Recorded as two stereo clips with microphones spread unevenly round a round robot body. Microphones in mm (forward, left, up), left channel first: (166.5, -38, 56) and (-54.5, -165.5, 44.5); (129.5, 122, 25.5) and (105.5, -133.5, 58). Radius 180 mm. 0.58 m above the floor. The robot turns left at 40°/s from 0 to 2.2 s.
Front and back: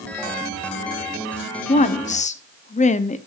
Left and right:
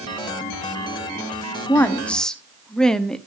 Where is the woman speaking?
40° left, 0.8 m; by 3.2 s 20° left, 0.8 m.